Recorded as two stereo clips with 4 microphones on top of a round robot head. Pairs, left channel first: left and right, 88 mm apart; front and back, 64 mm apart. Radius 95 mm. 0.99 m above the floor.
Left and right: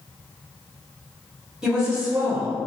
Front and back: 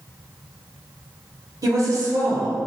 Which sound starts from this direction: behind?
A woman speaking, at 1.6 s.